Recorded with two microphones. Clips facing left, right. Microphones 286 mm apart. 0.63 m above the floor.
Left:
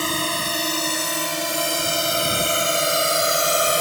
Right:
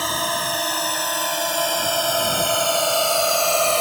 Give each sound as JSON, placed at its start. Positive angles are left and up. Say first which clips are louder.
{"t": 0.0, "sound": "a drone", "louder": "left 2 dB", "side_deg": 30}